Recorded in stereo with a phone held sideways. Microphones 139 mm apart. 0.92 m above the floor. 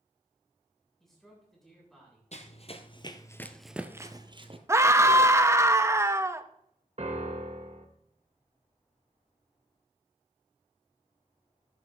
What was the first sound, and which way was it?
A man speaking, centre (ahead or behind).